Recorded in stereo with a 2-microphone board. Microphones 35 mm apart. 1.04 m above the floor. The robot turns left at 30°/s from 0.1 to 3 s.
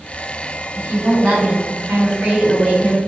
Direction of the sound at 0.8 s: 100° right.